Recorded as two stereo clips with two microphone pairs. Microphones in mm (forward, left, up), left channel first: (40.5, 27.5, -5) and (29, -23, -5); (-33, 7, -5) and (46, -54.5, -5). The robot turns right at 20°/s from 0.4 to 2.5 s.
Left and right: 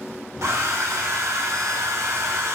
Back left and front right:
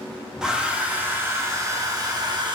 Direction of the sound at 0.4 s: 120° right.